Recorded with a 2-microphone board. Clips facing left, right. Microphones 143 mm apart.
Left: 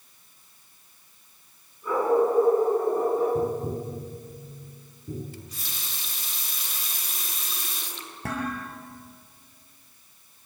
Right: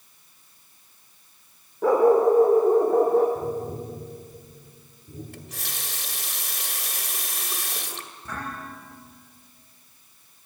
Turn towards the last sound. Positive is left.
turn(degrees=80)